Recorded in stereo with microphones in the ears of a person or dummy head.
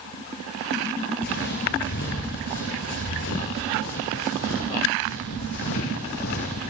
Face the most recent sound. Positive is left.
turn(degrees=50)  # may be behind; listen again after turning